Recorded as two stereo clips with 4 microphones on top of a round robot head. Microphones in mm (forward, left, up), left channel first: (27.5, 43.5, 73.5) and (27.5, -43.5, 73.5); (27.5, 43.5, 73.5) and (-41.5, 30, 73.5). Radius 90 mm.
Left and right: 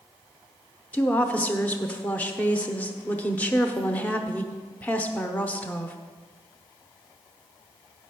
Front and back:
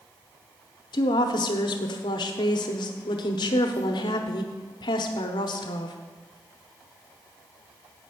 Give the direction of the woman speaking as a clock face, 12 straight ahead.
11 o'clock.